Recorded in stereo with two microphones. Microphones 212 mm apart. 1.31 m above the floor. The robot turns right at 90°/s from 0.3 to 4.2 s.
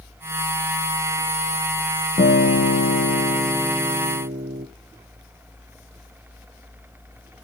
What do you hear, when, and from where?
2.2 s a guitar: 40° left, 0.7 m; by 4.7 s 140° right, 0.7 m